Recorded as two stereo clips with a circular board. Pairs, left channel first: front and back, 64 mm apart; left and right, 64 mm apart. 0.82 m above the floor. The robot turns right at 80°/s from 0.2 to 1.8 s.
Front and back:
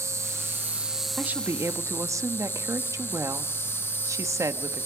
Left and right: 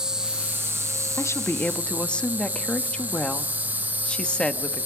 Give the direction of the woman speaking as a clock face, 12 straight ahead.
8 o'clock.